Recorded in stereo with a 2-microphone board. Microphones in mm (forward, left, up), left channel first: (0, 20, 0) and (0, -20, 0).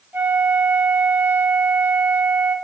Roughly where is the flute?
Right.